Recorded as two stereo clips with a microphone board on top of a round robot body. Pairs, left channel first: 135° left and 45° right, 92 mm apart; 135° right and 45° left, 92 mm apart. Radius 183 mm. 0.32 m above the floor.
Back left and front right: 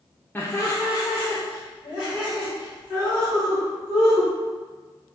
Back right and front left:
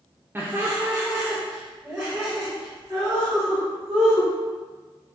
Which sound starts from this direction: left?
Laughter, at 0.3 s.